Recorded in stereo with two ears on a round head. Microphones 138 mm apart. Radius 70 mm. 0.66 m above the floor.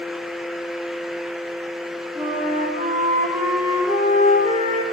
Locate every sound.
2.1 s a flute: 25° right (ahead or behind), 3.5 m